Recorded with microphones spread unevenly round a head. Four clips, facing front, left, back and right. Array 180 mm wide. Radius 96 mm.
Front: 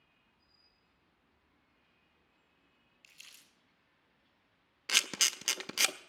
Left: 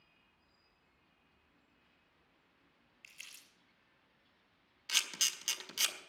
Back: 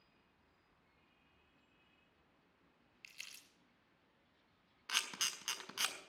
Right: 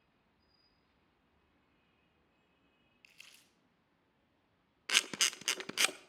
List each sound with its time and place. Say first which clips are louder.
3.0 s crumpling: left 5 dB, back 3 dB; 150° left, 6 m
4.9 s a camera shutter: right 5 dB, front 6 dB; 50° right, 0.5 m